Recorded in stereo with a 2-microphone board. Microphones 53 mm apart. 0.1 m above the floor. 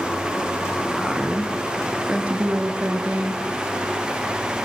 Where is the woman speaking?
10° right (ahead or behind), 1.9 m; by 3.4 s 35° right (ahead or behind), 1.7 m.